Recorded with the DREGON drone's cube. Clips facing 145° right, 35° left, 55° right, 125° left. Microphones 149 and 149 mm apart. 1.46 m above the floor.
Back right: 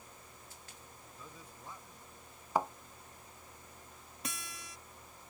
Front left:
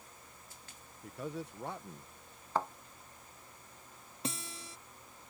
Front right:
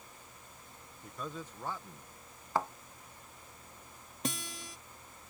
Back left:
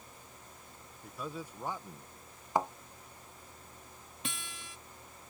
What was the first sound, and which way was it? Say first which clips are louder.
A man speaking: front left 15 dB, back left 1 dB; 35° left.